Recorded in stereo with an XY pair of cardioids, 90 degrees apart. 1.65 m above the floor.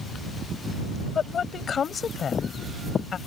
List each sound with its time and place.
1.1 s a woman speaking: 55° left